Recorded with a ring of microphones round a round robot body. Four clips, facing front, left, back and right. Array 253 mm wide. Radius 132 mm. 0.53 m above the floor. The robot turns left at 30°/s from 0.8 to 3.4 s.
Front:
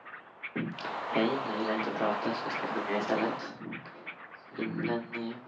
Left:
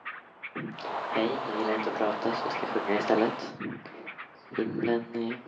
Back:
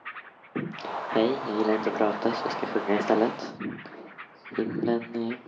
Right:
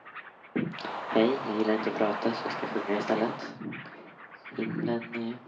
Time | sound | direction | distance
0.6 | singing | 130° right | 1.3 m